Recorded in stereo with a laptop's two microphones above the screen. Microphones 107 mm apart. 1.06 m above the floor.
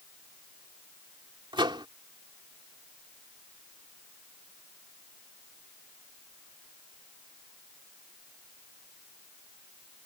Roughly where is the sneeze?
I don't hear a sneeze.